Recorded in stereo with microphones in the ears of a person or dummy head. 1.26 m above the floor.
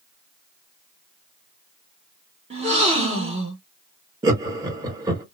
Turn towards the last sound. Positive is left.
turn(degrees=-20)  # may be behind; listen again after turning